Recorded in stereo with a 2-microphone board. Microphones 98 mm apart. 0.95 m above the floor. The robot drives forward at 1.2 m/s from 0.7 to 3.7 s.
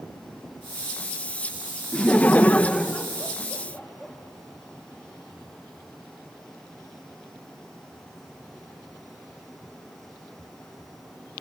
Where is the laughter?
10° left (ahead or behind), 0.8 m; by 4.1 s 5° left (ahead or behind), 1.7 m.